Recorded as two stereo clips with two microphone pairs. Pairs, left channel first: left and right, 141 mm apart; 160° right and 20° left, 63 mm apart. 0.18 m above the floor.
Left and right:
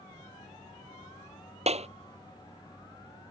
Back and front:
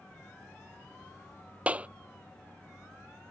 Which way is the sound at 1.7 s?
50° right.